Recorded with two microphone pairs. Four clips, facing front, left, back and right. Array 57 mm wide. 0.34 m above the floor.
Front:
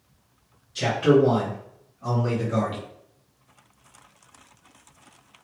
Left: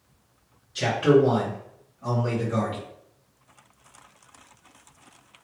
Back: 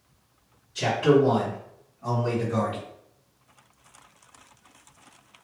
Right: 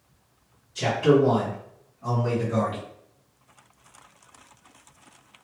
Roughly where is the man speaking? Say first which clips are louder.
Left 1 dB, front 1 dB; left.